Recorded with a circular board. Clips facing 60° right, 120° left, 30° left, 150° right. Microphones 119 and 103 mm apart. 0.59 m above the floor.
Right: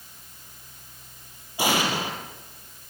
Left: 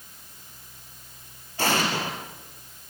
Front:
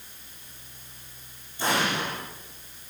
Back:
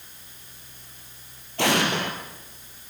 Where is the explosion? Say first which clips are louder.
Right 1 dB, back 3 dB; 140° right, 5 m.